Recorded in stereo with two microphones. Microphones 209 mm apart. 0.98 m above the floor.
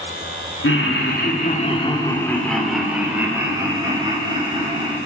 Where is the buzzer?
No buzzer in this recording.